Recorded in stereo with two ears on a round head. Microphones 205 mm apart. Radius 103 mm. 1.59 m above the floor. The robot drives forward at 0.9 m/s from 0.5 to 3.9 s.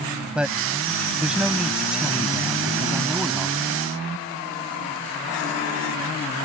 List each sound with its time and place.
0.3 s a man speaking: 5° right (ahead or behind)